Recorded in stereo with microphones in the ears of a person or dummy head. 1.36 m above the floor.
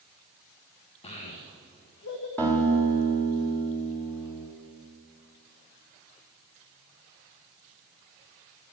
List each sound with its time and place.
1.0 s a child speaking: 30° left (ahead or behind), 1.2 m; by 2.3 s 65° left (ahead or behind), 1.4 m
2.4 s a guitar: 10° left (ahead or behind), 2.5 m